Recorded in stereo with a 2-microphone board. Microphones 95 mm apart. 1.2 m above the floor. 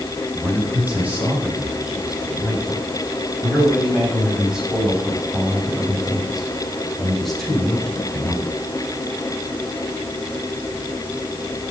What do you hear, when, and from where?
0.3 s a man speaking: 15° right (ahead or behind), 9 m; by 8.5 s 10° left (ahead or behind), 4.5 m